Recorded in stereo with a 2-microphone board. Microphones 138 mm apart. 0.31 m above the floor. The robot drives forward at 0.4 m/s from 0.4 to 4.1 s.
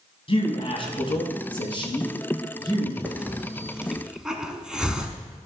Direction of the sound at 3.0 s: 10° right (ahead or behind).